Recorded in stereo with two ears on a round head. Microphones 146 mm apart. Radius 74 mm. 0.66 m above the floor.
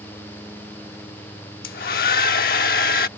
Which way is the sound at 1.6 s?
65° left (ahead or behind).